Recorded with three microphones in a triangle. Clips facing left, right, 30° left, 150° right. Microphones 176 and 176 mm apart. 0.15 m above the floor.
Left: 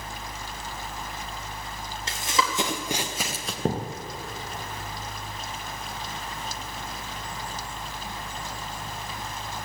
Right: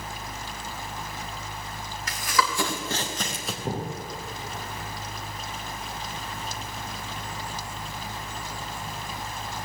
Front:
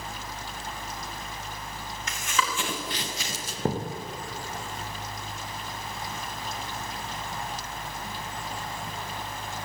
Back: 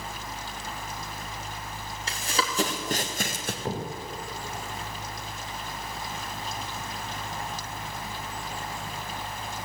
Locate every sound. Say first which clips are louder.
2.1 s running footsteps: right 1 dB, even; 150° left, 3.5 m; by 3.5 s 175° right, 2 m
3.6 s a thud: left 4 dB, front 5 dB; 75° left, 4 m